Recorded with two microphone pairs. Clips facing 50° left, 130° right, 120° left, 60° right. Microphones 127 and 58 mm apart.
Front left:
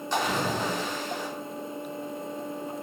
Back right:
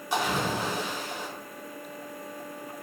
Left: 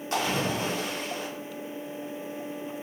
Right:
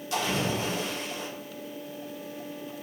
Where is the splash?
150° left, 1.3 m.